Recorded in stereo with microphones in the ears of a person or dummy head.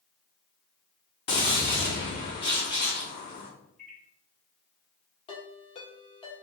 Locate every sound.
1.3 s a gunshot: 25° left (ahead or behind), 0.6 m
3.8 s a microwave: centre (ahead or behind), 1.3 m
5.3 s a ringtone: 35° left (ahead or behind), 1.6 m